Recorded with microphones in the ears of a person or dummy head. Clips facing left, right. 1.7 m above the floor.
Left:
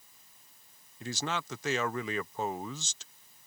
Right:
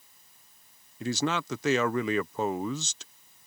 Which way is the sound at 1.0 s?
70° right (ahead or behind).